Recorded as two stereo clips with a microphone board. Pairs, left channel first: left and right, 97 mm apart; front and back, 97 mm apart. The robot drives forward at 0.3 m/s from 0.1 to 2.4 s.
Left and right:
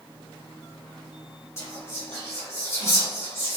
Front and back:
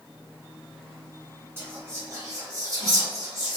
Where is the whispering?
130° left, 1.0 m; by 3.6 s 145° left, 1.1 m.